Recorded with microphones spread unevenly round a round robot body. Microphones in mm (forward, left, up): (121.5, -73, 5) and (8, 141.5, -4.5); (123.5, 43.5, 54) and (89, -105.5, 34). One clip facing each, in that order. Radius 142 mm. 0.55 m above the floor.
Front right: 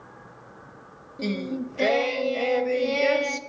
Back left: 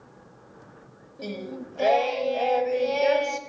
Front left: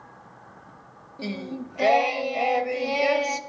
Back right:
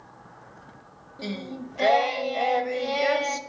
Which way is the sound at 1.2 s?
Straight ahead.